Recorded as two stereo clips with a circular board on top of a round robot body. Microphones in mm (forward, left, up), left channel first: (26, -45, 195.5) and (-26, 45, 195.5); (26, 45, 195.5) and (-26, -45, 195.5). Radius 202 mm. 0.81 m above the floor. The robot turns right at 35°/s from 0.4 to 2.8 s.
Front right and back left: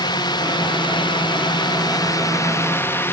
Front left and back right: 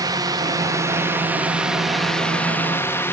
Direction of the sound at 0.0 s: 85° right.